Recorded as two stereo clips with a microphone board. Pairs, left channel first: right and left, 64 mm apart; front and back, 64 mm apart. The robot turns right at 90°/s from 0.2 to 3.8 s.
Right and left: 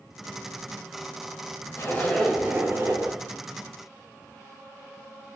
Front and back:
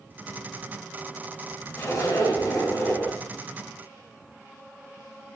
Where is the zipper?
45° right, 0.9 m; by 3.2 s 80° left, 0.9 m.